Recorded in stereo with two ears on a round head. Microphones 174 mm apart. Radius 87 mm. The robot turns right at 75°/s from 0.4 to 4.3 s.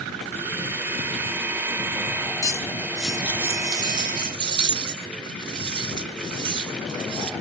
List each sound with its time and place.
2.4 s cutlery clinking: 20° left (ahead or behind), 1.0 m; by 7.3 s 25° right (ahead or behind), 1.0 m